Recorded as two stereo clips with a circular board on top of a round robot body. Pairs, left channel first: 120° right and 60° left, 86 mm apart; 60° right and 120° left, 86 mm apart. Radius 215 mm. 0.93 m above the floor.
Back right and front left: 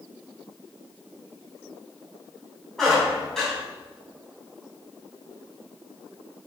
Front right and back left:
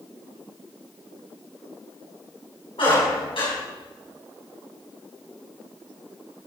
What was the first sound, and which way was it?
A squeak, 35° right.